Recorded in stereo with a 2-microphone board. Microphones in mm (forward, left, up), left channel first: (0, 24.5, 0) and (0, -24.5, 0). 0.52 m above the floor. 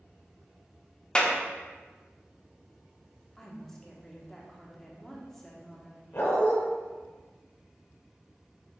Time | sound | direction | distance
1.1 | a clap | 20° left (ahead or behind) | 0.5 m
3.4 | a woman speaking | 5° left (ahead or behind) | 0.7 m
6.1 | a dog barking | 60° left (ahead or behind) | 1.3 m